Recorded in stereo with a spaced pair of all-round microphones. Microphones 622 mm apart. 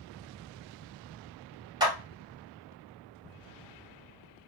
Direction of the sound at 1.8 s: 5° right (ahead or behind).